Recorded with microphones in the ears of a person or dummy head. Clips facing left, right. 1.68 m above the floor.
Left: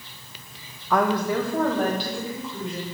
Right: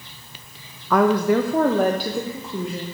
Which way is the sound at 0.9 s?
65° right (ahead or behind).